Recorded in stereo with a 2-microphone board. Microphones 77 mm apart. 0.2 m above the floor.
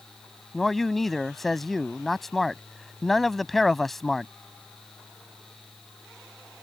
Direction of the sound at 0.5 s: Centre (ahead or behind).